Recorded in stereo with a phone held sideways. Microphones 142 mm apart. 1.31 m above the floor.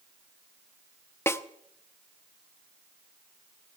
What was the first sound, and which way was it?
A snare drum, 20° left (ahead or behind).